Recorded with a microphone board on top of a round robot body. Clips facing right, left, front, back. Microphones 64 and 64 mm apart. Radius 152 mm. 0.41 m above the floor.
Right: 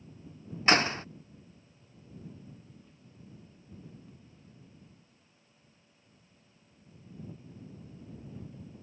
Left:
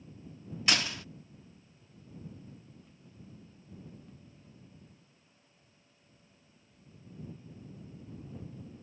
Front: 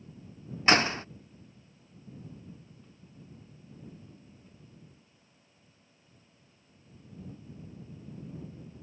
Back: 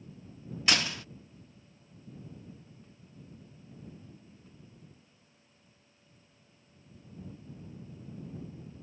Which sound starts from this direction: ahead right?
A door slam, at 0.7 s.